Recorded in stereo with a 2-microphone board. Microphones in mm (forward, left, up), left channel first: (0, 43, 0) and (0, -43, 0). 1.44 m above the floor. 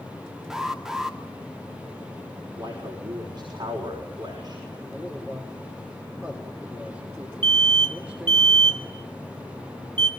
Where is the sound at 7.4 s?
75° right (ahead or behind), 2.5 m.